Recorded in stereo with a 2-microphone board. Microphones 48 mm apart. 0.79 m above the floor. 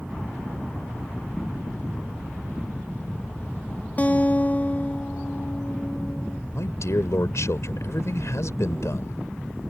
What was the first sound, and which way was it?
A guitar, 35° left (ahead or behind).